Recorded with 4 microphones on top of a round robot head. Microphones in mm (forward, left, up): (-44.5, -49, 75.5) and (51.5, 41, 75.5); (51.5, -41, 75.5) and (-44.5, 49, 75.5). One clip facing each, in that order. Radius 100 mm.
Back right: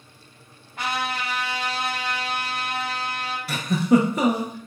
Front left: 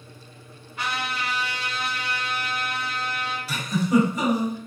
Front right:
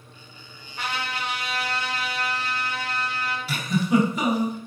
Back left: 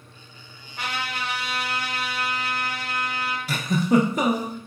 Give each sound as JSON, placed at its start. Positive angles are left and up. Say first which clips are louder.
{"t": 0.8, "sound": "a trumpet", "louder": "back right 2 dB, even", "azimuth_deg": 180, "distance_m": 2.0}
{"t": 3.5, "sound": "a giggle", "louder": "back right 3 dB, back left 2 dB", "azimuth_deg": -175, "distance_m": 0.6}